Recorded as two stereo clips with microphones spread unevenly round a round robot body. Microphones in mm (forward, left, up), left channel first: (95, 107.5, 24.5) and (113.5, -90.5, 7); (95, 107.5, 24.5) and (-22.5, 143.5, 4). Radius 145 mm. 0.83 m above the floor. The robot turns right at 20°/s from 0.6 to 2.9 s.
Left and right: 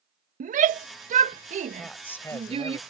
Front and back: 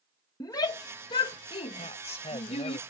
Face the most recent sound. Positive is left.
turn(degrees=30)